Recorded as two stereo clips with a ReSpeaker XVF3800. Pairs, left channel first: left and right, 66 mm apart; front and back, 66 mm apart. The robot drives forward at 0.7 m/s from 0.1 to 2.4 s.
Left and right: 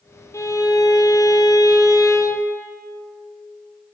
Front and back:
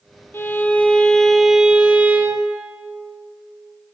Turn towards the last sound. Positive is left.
turn(degrees=130)